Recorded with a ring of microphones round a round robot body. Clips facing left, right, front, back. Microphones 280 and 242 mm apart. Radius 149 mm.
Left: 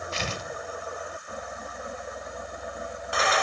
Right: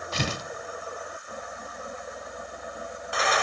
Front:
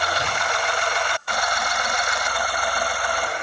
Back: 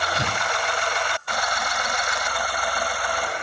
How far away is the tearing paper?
About 0.7 m.